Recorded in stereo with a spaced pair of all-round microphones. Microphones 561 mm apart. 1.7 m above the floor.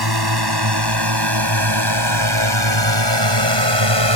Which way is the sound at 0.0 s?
40° right (ahead or behind).